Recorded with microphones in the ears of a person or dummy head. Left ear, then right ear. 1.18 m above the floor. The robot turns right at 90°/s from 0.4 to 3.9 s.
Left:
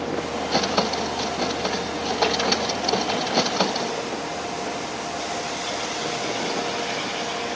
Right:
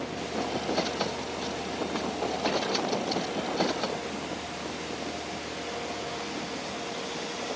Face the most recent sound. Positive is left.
No sound to turn to.